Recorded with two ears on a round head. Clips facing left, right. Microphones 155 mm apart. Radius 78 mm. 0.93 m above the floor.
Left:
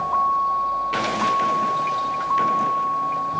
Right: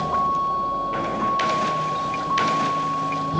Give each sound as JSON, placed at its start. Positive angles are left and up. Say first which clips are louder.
{"t": 0.0, "sound": "a vehicle", "louder": "left 1 dB", "side_deg": -40}